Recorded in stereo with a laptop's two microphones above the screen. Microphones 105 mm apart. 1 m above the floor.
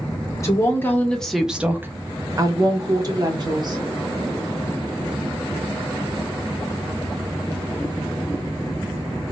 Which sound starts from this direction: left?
A woman speaking, at 0.4 s.